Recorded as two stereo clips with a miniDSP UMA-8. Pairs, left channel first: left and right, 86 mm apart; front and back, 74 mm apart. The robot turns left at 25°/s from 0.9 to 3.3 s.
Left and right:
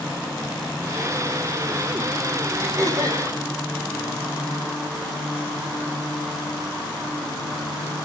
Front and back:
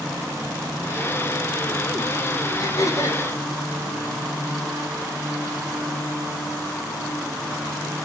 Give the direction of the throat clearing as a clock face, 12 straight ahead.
1 o'clock.